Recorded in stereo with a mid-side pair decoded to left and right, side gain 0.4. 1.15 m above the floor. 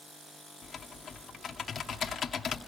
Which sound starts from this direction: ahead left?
Typing on a keyboard, at 0.6 s.